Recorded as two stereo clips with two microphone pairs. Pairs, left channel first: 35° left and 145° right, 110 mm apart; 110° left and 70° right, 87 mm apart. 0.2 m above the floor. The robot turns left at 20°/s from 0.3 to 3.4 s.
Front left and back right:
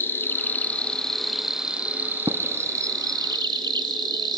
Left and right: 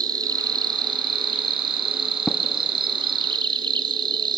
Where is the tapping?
170° right, 1.1 m; by 2.4 s 175° right, 1.1 m.